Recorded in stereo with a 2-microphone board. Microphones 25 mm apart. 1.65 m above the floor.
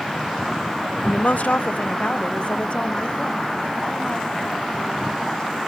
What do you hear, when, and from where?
1.0 s a woman speaking: 50° left (ahead or behind); by 5.6 s 40° left (ahead or behind)